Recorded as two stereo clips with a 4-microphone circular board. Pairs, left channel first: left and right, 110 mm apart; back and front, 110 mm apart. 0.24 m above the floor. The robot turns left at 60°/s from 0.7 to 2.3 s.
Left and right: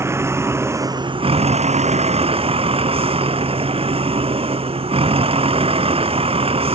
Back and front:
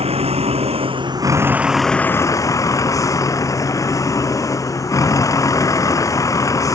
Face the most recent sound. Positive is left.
turn(degrees=-120)